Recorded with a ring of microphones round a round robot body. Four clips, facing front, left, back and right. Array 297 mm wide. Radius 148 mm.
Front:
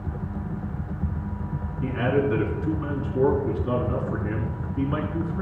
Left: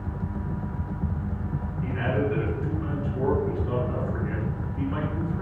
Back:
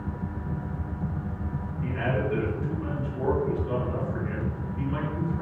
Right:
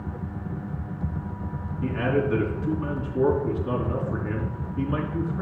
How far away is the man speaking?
About 5 m.